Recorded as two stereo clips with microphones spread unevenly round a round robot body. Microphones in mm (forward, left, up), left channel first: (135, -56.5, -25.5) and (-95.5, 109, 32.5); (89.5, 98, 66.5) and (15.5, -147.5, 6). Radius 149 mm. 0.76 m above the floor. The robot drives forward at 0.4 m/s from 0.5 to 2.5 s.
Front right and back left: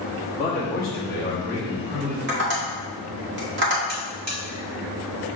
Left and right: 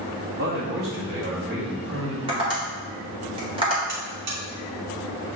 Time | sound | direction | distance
0.4 | a man speaking | 115° right | 1.2 m
2.3 | tapping | 160° right | 1.3 m
3.9 | a buzzer | 150° right | 1.6 m